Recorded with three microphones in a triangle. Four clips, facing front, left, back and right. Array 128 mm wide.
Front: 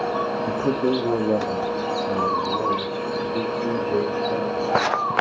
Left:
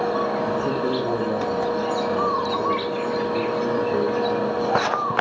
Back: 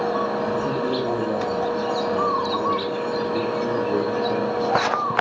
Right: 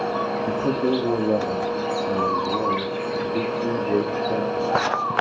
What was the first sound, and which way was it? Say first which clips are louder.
A man speaking: right 1 dB, front 1 dB; 55° right.